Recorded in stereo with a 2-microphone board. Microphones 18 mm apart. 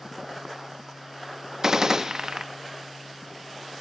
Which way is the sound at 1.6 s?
30° right (ahead or behind).